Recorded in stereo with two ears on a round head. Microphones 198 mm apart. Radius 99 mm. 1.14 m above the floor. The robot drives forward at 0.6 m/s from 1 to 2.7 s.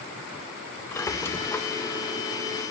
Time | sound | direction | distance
0.9 | a squeak | 10° left (ahead or behind) | 0.9 m